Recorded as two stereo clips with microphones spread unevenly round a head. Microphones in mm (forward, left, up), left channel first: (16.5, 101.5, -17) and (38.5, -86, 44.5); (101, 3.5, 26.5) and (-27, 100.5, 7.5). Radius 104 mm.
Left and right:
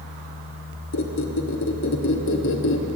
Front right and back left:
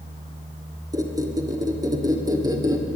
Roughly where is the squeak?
Left.